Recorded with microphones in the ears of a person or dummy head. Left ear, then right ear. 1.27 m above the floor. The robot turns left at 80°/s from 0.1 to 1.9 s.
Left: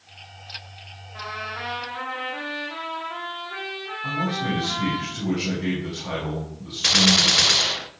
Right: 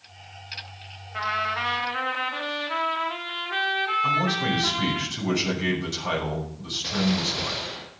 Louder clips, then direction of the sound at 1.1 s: Right 6 dB; 55° right.